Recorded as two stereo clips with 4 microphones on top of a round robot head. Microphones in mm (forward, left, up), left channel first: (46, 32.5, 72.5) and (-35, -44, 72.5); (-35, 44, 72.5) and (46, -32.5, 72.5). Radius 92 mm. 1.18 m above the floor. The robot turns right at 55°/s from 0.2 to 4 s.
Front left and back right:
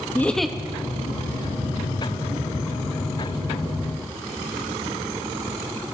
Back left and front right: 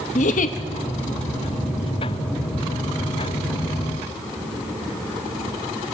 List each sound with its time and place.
0.1 s a giggle: 120° left, 0.9 m; by 0.6 s 140° left, 0.9 m